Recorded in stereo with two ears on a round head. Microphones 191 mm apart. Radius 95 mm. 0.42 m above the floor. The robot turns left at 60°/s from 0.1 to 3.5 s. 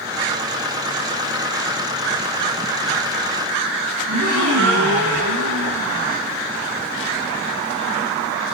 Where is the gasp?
80° right, 3.5 m.